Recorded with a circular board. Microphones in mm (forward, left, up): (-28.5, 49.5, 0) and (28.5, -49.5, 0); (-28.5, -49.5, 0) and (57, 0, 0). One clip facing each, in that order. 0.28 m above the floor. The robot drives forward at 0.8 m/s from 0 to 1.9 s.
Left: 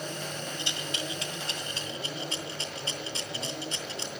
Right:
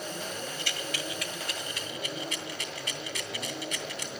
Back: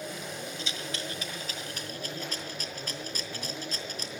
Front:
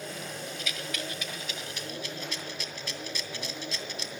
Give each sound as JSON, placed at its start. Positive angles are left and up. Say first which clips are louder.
{"t": 0.6, "sound": "a rattle", "louder": "even, even", "azimuth_deg": 170, "distance_m": 1.5}